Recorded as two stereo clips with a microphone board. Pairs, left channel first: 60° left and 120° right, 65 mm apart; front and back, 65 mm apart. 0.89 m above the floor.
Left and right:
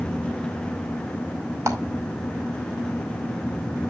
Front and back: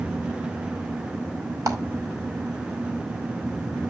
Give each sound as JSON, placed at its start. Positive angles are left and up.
{"t": 1.7, "sound": "a clap", "azimuth_deg": -160, "distance_m": 2.5}